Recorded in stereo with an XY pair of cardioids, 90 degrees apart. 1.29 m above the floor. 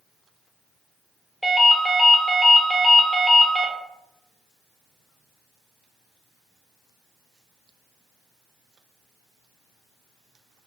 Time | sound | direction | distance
1.4 | a ringtone | 5° right | 0.8 m